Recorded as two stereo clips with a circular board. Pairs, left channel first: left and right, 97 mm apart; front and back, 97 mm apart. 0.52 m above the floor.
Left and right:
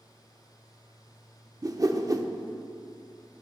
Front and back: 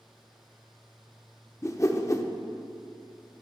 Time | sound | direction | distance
1.6 | a whoosh | 50° right | 0.6 m